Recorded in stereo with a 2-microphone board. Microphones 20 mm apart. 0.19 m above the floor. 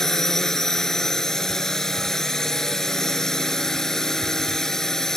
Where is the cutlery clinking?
I don't hear cutlery clinking.